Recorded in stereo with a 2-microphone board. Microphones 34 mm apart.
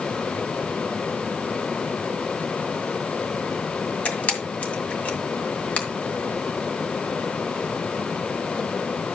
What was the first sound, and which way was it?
A camera shutter, 50° left (ahead or behind).